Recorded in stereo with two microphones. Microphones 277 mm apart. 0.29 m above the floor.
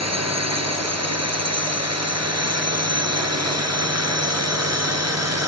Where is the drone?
65° right (ahead or behind).